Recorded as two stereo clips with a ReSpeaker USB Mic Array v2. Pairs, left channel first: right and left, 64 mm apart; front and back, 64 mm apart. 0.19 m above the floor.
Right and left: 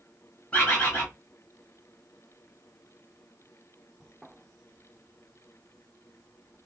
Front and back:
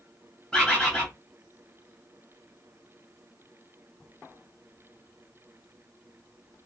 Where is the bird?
60° right, 1.7 m.